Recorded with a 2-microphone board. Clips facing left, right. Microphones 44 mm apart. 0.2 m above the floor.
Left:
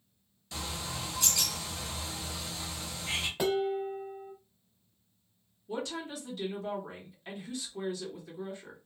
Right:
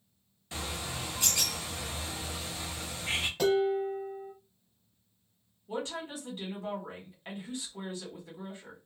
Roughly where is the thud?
I don't hear a thud.